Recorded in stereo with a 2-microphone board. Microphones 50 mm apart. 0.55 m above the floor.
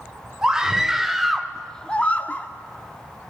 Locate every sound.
0.4 s a scream: 10° right (ahead or behind), 2 m; by 2.5 s 35° left (ahead or behind), 1.1 m